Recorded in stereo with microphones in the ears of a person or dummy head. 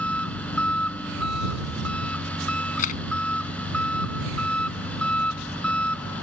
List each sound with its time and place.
0.0 s an engine running: 5° left (ahead or behind)
2.8 s a camera shutter: 45° left (ahead or behind)